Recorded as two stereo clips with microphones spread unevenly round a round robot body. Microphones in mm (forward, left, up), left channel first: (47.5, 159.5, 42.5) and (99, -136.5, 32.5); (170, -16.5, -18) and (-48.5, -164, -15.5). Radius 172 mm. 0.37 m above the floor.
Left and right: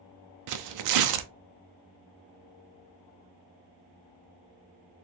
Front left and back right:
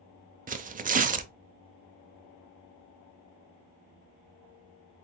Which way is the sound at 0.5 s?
85° right.